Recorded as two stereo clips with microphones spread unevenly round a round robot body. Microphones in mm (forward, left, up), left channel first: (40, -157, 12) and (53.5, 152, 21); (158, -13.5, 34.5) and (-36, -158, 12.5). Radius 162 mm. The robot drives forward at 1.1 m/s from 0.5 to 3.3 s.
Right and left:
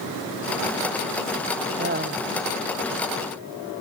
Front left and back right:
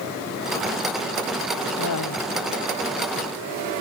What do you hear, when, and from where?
1.8 s laughter: 30° left